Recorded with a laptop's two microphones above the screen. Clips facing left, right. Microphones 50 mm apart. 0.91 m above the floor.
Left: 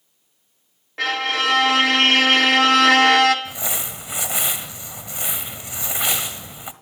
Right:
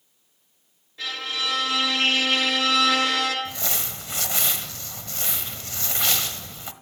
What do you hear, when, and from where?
1.0 s a violin: 70° left (ahead or behind), 1.3 m
3.5 s crumpling: 15° left (ahead or behind), 1.1 m